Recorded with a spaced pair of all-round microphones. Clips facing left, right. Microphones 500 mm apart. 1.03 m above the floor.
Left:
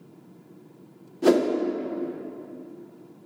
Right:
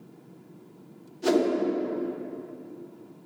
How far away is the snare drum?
No snare drum in this recording.